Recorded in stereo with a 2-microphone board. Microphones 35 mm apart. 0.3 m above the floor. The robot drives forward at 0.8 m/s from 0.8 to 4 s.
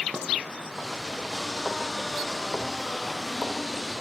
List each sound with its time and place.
0.1 s dishes clattering: 30° right (ahead or behind), 0.8 m